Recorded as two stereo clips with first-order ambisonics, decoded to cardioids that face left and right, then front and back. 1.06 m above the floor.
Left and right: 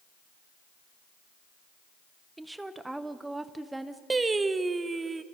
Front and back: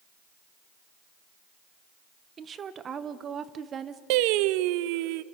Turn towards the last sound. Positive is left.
turn(degrees=-165)